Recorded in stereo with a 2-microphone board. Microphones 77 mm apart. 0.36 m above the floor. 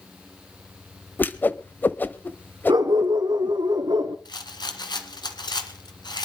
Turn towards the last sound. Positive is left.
turn(degrees=80)